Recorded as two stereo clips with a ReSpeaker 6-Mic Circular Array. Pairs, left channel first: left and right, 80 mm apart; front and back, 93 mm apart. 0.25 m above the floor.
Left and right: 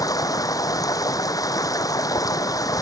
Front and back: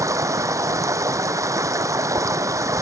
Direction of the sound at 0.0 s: 125° left.